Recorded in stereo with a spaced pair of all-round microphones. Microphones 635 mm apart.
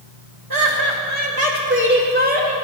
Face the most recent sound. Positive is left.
turn(degrees=-10)  # may be behind; listen again after turning